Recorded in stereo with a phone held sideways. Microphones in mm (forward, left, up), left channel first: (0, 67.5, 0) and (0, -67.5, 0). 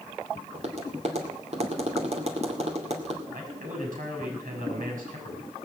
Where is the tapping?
50° right (ahead or behind), 2 m.